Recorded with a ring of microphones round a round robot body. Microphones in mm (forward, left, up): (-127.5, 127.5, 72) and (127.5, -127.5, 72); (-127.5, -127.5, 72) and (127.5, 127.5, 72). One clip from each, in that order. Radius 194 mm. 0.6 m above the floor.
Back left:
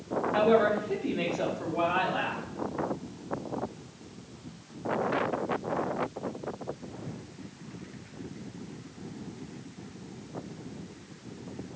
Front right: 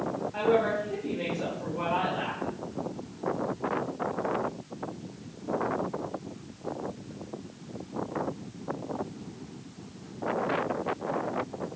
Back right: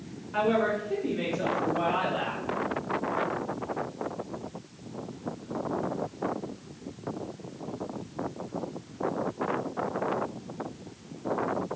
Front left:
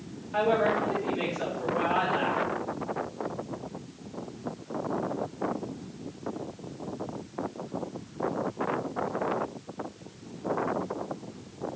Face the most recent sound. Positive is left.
turn(degrees=130)